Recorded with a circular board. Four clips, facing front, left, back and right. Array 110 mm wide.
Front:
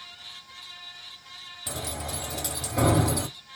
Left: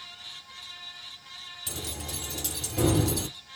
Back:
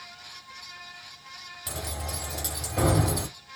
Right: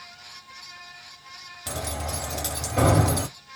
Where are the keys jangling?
75° right, 1.3 m.